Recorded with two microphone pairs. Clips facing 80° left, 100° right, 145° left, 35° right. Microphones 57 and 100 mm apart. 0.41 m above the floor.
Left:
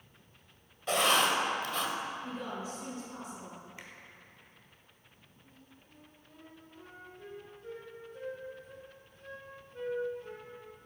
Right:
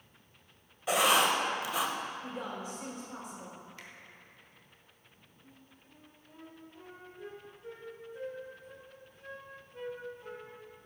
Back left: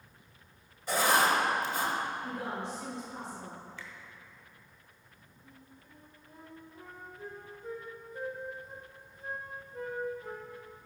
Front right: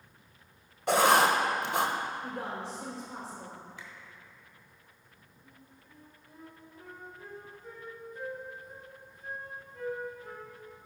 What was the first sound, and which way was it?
Writing, 20° right.